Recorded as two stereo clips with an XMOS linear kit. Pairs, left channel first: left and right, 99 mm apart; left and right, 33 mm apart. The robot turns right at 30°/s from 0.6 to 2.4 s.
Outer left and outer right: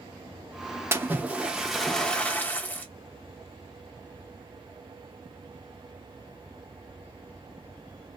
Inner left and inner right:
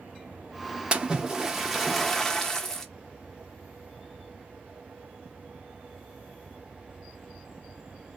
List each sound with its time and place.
0.9 s a splash: 25° right, 0.7 m; by 2.9 s 20° left, 0.7 m